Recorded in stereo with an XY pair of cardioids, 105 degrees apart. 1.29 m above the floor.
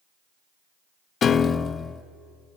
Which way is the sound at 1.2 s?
45° left.